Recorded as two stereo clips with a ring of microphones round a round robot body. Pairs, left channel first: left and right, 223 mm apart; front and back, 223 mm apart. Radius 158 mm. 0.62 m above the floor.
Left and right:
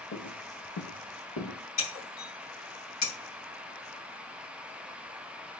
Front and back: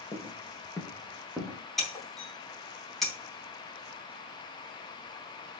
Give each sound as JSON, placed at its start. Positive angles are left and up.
{"t": 0.1, "sound": "footsteps", "azimuth_deg": 80, "distance_m": 3.5}
{"t": 1.8, "sound": "breaking glass", "azimuth_deg": 90, "distance_m": 3.5}